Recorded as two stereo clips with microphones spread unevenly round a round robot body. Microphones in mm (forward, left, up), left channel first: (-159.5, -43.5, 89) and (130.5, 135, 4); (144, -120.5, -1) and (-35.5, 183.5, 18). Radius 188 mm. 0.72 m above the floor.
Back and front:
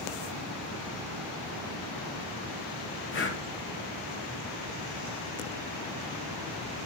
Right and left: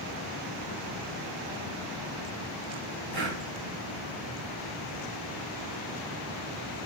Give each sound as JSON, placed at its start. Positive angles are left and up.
{"t": 3.1, "sound": "breathing", "azimuth_deg": 155, "distance_m": 2.0}